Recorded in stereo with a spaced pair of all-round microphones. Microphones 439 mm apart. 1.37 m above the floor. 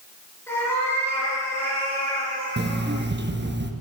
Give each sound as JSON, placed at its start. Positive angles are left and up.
{"t": 0.5, "sound": "a cat meowing", "side_deg": 5, "distance_m": 4.5}
{"t": 2.6, "sound": "an alarm clock", "side_deg": -25, "distance_m": 0.7}